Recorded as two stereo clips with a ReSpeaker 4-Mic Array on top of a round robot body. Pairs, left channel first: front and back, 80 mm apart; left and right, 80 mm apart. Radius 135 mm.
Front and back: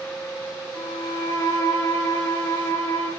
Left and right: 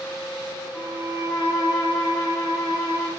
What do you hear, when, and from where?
0.7 s a violin: 55° left, 3 m